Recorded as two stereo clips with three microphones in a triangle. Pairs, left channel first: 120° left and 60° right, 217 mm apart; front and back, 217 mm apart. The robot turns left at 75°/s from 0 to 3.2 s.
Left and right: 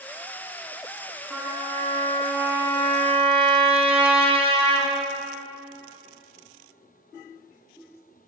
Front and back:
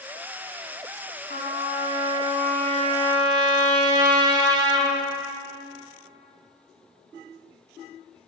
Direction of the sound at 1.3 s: 30° left.